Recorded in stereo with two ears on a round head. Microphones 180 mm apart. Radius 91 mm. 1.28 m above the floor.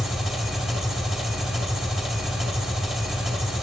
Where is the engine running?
5° right (ahead or behind), 1.2 m.